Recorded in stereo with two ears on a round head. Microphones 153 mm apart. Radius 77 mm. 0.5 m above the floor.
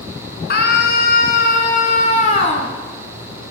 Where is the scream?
65° left (ahead or behind), 6 m; by 2.7 s 40° left (ahead or behind), 6 m.